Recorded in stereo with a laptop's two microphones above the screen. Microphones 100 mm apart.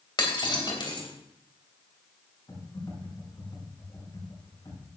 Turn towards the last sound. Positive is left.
turn(degrees=40)  # may be behind; listen again after turning